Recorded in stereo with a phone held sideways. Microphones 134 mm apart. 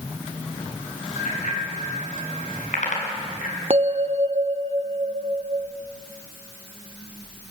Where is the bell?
45° right (ahead or behind), 0.7 m.